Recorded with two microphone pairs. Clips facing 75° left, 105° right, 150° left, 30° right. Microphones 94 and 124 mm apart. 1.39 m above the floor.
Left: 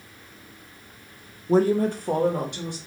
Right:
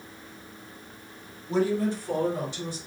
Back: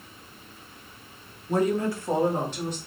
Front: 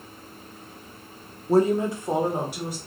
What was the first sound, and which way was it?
A woman speaking, 25° left.